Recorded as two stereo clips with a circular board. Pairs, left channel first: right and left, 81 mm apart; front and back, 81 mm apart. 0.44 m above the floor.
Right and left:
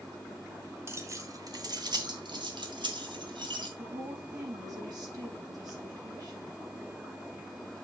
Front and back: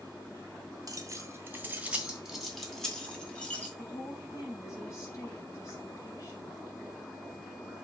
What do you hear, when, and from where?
0.9 s keys jangling: 145° left, 1.5 m; by 3.7 s 75° left, 3 m
3.8 s a woman speaking: 50° left, 4 m